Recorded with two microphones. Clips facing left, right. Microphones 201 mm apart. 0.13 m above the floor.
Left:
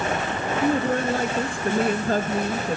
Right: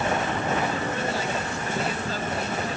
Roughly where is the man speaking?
Left.